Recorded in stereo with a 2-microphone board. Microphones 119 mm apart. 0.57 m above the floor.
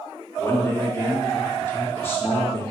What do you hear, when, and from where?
0.4 s a man speaking: 20° left (ahead or behind), 0.7 m